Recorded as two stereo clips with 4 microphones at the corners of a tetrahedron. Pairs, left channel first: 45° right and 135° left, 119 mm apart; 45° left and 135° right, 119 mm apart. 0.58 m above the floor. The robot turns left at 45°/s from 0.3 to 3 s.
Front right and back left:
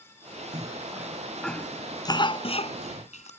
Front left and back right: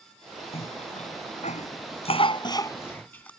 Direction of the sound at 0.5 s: 80° left.